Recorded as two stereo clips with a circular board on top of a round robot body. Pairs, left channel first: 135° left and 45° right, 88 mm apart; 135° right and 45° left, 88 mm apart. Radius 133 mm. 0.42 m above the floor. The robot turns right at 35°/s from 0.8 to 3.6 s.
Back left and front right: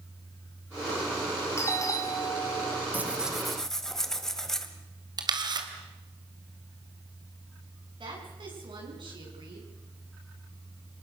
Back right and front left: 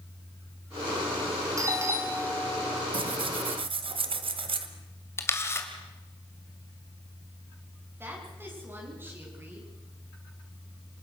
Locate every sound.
1.6 s a doorbell: 85° left, 3 m; by 2.8 s 130° left, 3 m
2.9 s tearing paper: 30° left, 1.4 m; by 4.7 s 50° left, 1.4 m
5.2 s a camera shutter: 75° right, 2.5 m
8.0 s a woman speaking: 20° right, 6.5 m